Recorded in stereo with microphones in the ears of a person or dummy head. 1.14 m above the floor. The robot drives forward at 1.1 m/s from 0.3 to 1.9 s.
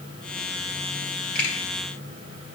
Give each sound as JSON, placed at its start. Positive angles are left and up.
{"t": 1.4, "sound": "a finger snap", "side_deg": 5, "distance_m": 3.5}